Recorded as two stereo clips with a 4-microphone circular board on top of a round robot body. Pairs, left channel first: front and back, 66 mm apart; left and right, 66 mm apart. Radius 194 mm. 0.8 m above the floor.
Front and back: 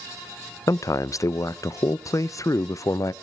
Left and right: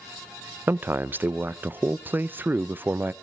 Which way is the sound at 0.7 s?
35° right.